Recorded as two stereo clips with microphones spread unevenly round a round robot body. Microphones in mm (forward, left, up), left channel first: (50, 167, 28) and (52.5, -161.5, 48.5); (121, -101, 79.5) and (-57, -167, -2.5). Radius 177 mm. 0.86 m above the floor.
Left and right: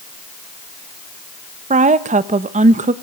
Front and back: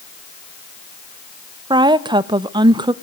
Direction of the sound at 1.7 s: 155° right.